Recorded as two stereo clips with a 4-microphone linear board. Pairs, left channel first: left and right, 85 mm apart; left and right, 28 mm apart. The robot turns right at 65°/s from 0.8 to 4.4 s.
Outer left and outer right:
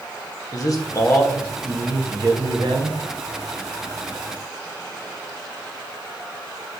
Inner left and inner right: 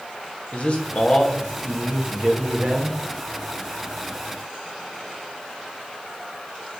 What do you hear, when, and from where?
0.5 s a man speaking: 135° left, 1.8 m; by 3.0 s 85° right, 1.8 m